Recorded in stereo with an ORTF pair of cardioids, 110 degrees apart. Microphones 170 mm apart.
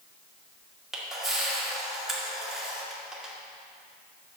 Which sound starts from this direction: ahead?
A camera shutter, at 0.9 s.